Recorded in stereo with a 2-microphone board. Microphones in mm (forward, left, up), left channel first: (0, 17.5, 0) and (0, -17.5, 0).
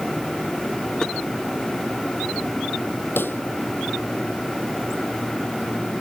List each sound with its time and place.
1.0 s tapping: 20° left (ahead or behind)
3.2 s a pop: 80° left